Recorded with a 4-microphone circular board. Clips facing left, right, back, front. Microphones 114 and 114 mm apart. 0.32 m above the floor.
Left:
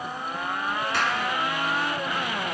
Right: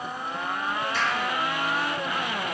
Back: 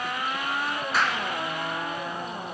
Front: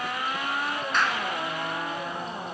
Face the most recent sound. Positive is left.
turn(degrees=95)